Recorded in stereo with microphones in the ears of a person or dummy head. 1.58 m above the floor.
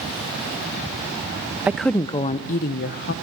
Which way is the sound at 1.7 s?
15° right (ahead or behind).